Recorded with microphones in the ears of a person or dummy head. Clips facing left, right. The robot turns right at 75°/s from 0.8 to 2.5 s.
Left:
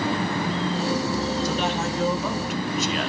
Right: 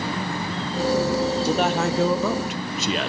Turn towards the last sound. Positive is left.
turn(degrees=-70)